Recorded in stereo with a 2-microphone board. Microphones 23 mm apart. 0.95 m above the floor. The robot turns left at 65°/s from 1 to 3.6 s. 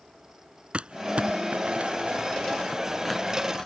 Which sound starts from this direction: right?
Crumpling, at 0.7 s.